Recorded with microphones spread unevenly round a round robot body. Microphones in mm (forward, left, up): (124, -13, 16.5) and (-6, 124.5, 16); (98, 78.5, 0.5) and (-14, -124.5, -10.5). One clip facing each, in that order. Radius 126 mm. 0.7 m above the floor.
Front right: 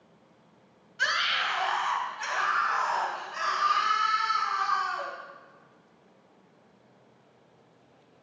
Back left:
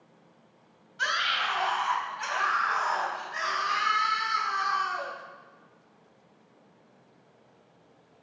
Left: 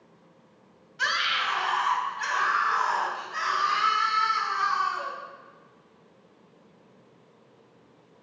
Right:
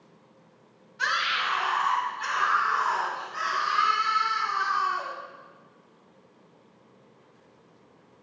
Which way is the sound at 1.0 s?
20° left.